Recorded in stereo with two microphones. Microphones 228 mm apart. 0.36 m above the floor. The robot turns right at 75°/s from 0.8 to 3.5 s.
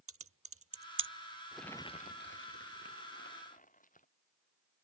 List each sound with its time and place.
0.1 s typing on a keyboard: 75° right (ahead or behind); by 1.1 s 55° right (ahead or behind)
1.5 s crumpling: 5° right; by 4.1 s 145° left